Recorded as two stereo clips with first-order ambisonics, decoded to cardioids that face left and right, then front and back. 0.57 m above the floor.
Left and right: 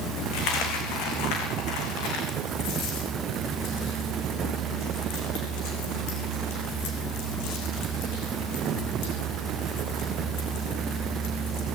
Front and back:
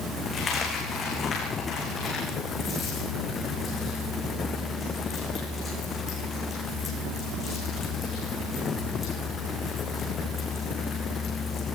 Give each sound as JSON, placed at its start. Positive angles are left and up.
{"t": 0.3, "sound": "a dropped coin", "azimuth_deg": 70, "distance_m": 6.0}